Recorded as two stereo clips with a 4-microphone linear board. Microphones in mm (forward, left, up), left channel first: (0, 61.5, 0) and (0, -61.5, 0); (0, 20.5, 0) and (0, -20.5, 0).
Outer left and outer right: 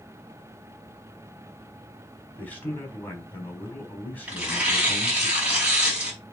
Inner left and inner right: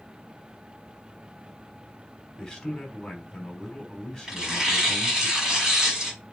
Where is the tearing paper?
10° right (ahead or behind), 5 m.